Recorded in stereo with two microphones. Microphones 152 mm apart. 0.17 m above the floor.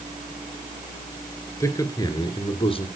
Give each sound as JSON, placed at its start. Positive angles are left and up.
{"t": 1.6, "sound": "a man speaking", "side_deg": 20, "distance_m": 3.0}